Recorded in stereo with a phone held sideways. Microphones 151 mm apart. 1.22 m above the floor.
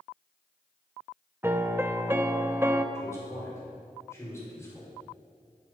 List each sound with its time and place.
1.4 s a piano: 15° right (ahead or behind), 0.6 m
3.0 s a man speaking: 20° left (ahead or behind), 4.5 m